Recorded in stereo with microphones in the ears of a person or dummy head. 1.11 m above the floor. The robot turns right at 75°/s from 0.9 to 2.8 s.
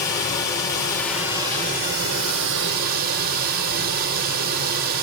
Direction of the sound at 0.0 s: 155° left.